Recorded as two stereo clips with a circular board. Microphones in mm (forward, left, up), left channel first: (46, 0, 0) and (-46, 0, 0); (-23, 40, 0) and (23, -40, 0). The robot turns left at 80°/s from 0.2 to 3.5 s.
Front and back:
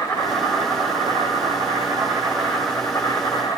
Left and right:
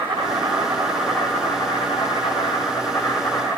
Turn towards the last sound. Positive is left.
turn(degrees=15)